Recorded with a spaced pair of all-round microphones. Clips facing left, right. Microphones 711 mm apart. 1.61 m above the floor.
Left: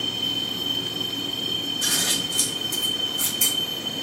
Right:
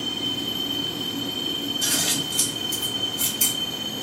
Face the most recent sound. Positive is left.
turn(degrees=-30)  # may be behind; listen again after turning